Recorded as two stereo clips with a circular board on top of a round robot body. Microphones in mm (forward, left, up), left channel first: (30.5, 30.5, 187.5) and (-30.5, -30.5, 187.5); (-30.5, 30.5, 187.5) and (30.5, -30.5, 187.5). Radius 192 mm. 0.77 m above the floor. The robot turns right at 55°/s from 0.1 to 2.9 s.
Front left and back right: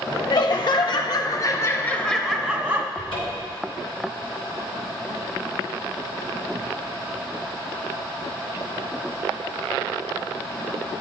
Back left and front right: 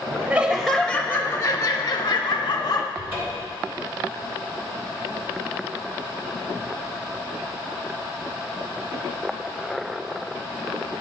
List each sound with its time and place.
0.3 s laughter: 15° left, 0.7 m; by 2.9 s 155° left, 0.7 m
3.0 s a cupboard door: 20° left, 3.5 m